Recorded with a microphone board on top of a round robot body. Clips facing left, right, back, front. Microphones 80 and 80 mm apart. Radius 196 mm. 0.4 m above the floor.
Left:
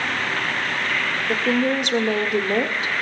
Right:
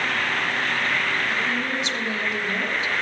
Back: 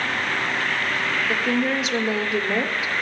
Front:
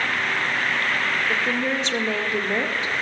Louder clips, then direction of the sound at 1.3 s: Left 5 dB, back 1 dB; 100° left.